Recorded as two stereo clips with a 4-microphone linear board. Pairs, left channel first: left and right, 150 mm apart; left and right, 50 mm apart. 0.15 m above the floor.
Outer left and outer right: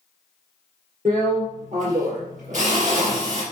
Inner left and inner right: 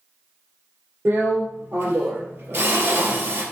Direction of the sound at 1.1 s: 60° right (ahead or behind).